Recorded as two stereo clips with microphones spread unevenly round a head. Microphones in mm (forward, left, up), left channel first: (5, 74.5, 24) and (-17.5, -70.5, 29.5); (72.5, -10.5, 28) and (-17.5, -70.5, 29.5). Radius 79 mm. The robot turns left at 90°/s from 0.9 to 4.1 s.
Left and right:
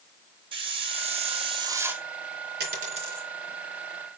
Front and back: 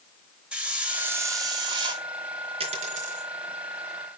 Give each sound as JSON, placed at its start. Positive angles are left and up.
{"t": 0.5, "sound": "a hiss", "azimuth_deg": -70, "distance_m": 1.1}
{"t": 2.6, "sound": "a dropped coin", "azimuth_deg": -115, "distance_m": 3.5}